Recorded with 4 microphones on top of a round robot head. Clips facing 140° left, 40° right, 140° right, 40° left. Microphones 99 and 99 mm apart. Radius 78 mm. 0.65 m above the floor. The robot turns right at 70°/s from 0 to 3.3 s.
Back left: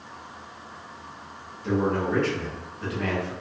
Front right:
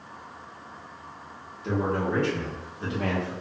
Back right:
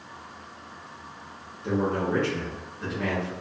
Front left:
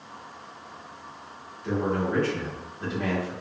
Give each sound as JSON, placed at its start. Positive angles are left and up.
{"t": 1.6, "sound": "a man speaking", "azimuth_deg": -135, "distance_m": 1.2}